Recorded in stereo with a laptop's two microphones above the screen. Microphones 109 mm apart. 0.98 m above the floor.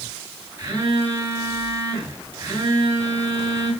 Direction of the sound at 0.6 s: 25° right (ahead or behind).